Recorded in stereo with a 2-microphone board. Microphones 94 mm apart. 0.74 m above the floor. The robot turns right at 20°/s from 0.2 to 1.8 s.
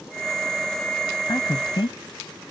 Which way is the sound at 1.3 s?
50° left (ahead or behind).